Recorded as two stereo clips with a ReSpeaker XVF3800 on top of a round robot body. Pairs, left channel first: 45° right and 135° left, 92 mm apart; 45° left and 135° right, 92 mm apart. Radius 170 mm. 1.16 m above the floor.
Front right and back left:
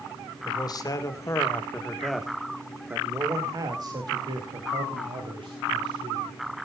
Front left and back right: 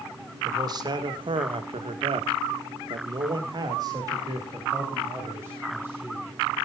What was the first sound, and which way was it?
A man speaking, 85° right.